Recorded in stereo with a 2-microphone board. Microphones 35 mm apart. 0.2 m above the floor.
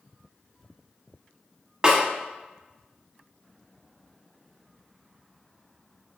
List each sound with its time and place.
1.8 s a snare drum: 25° right (ahead or behind), 1.1 m